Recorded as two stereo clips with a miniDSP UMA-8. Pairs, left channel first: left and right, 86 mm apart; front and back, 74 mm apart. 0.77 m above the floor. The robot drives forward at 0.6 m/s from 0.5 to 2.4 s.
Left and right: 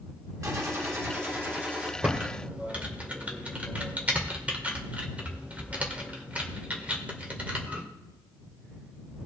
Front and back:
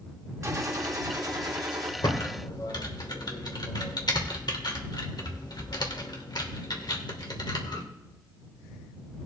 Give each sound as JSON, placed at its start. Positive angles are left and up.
{"t": 0.4, "sound": "a gunshot", "azimuth_deg": -135, "distance_m": 1.0}
{"t": 2.0, "sound": "typing on a keyboard", "azimuth_deg": -15, "distance_m": 2.0}